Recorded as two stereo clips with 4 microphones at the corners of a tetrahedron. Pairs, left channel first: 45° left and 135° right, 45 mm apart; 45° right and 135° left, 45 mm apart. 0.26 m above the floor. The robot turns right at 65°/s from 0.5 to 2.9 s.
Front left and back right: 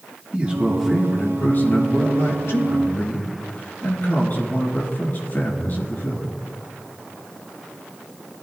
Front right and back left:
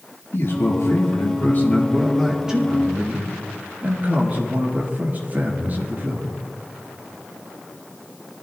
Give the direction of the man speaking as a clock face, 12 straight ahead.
2 o'clock.